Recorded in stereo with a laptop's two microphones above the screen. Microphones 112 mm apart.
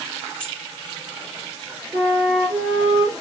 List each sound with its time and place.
0.4 s keys jangling: 10° left (ahead or behind), 2.5 m
1.9 s a flute: 15° right (ahead or behind), 5.5 m